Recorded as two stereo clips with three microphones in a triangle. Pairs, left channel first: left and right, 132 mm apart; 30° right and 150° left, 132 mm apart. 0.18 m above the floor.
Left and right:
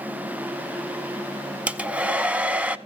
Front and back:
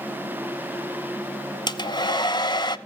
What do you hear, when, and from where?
1.7 s a hair dryer: 20° right, 0.6 m